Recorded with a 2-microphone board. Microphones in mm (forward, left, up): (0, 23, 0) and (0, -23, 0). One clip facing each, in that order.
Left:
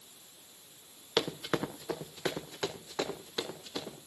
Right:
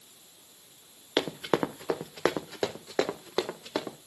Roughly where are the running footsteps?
Right.